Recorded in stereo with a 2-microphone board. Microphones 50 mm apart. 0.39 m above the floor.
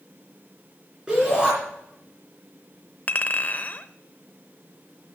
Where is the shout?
15° right (ahead or behind), 4.5 m.